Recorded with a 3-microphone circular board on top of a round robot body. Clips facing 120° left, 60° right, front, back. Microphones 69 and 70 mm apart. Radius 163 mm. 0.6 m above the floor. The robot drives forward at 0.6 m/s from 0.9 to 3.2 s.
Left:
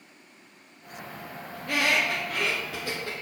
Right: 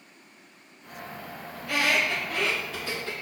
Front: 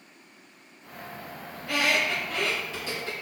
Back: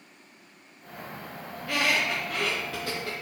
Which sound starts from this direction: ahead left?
A squeak, at 1.6 s.